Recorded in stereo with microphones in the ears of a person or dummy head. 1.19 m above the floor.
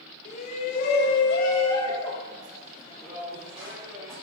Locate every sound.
0.2 s a shout: 45° left (ahead or behind), 1.7 m; by 4.1 s 10° right (ahead or behind), 4 m